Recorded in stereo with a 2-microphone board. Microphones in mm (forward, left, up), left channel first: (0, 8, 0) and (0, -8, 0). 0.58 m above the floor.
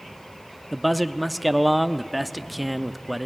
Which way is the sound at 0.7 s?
5° right (ahead or behind).